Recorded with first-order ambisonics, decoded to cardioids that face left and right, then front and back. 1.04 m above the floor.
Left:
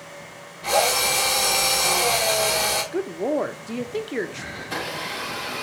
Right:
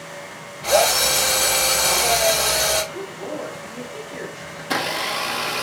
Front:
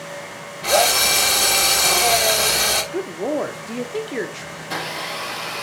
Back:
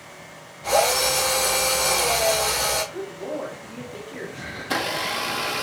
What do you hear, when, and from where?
0.6 s a drill: 15° right, 2.5 m
2.9 s a woman speaking: 45° left, 0.6 m
4.6 s a blender: 110° right, 0.9 m